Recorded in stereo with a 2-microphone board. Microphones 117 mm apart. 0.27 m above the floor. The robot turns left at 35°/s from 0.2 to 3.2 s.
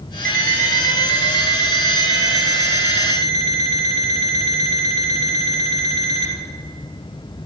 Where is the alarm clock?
170° left, 2.5 m; by 6.3 s 70° left, 2.5 m.